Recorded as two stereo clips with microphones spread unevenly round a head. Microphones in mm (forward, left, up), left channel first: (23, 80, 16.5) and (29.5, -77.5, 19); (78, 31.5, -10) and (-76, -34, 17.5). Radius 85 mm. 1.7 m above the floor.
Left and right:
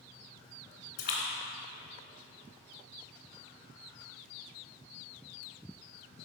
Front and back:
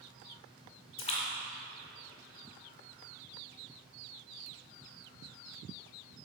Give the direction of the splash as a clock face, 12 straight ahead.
9 o'clock.